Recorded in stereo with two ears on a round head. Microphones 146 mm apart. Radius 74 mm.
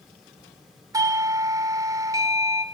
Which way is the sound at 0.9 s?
20° right (ahead or behind).